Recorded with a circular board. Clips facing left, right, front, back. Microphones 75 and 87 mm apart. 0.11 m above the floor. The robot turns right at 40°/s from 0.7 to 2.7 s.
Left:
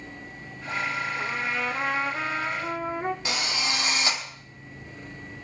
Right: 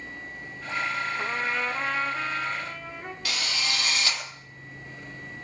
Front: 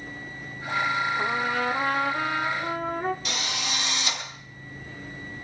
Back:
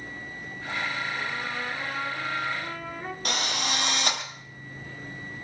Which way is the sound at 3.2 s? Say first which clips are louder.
Left 2 dB, back 2 dB; 155° left.